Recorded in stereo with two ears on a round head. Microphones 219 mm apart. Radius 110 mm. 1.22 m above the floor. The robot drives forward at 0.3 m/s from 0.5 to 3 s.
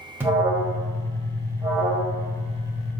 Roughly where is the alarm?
Centre.